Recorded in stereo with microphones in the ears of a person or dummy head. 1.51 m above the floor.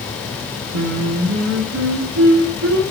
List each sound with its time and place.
0.7 s singing: 85° right, 3.5 m